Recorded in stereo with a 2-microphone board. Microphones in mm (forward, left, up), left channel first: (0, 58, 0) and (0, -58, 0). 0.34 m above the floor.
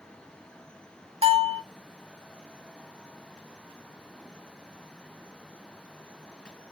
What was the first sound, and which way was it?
A bell, 60° right (ahead or behind).